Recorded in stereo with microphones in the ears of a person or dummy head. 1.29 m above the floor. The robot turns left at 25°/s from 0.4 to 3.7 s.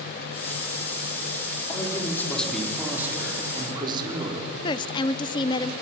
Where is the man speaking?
25° left, 3.5 m; by 4.5 s 25° right, 3.5 m.